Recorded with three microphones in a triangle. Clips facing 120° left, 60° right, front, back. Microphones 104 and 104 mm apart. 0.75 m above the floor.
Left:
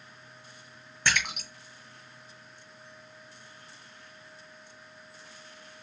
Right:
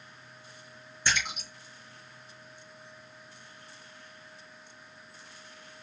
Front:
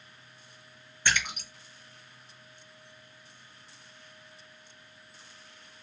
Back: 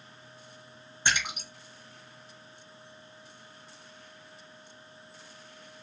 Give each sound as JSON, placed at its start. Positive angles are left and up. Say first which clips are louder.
{"t": 1.1, "sound": "a splash", "louder": "left 2 dB, even", "azimuth_deg": 115, "distance_m": 1.7}